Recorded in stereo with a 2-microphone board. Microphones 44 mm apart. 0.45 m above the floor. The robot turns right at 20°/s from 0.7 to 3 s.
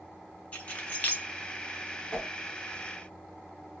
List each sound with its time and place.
0.5 s keys jangling: 35° left (ahead or behind), 0.9 m
2.1 s a whoosh: 15° left (ahead or behind), 1.0 m; by 2.3 s 20° left (ahead or behind), 1.0 m